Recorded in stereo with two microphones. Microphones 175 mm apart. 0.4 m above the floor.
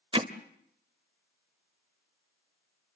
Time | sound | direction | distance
0.1 | hammering | 30° right (ahead or behind) | 1.1 m